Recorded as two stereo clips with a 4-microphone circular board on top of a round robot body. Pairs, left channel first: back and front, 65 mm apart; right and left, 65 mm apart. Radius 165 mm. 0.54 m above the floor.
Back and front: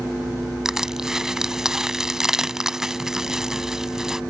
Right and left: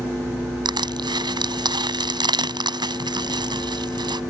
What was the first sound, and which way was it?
Crushing, 85° left.